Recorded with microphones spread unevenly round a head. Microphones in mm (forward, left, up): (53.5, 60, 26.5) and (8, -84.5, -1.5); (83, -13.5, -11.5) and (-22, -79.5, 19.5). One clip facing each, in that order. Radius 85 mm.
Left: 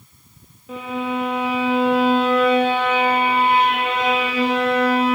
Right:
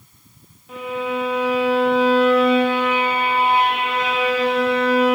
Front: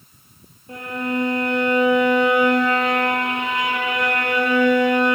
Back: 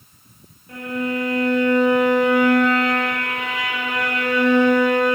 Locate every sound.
0.7 s a violin: 105° left, 1.8 m